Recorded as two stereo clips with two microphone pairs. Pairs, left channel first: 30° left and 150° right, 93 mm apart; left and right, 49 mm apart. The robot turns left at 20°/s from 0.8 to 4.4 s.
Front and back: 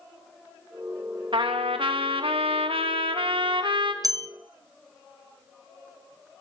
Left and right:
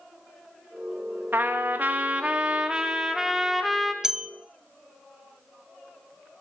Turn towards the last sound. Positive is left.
turn(degrees=-170)